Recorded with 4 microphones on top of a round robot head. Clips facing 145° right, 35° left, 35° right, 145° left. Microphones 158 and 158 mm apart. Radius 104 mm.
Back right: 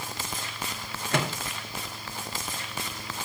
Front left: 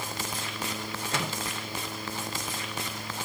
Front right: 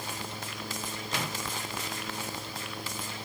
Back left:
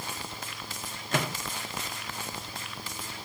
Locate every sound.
1.1 s a microwave: 175° right, 1.9 m